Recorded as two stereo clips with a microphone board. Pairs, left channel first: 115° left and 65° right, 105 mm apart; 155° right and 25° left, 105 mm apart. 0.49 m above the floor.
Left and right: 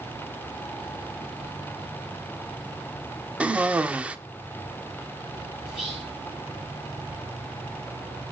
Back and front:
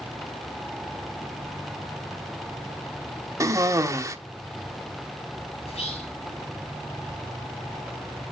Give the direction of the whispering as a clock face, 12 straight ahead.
5 o'clock.